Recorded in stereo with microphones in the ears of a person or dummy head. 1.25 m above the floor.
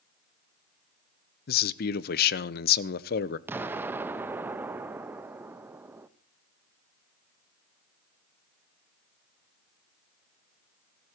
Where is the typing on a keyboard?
I don't hear typing on a keyboard.